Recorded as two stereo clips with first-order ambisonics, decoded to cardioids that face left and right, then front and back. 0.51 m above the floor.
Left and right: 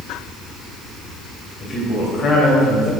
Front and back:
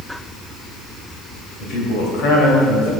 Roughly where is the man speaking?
Ahead left.